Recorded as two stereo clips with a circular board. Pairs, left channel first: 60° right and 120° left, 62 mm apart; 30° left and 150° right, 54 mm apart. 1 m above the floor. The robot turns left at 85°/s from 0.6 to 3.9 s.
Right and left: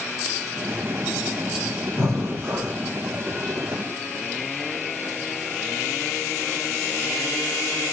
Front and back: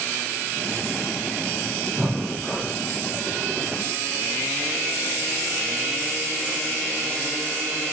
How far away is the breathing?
About 1.1 m.